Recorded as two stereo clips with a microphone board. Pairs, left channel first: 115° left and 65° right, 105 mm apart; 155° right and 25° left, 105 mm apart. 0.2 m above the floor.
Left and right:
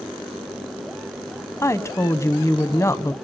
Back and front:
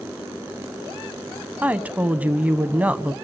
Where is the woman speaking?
85° left, 1.1 m.